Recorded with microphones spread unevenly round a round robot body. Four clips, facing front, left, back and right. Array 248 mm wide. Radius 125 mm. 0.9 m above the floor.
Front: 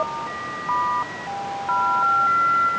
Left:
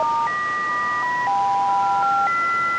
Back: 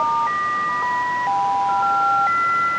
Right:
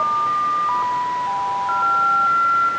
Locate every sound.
Only background noise.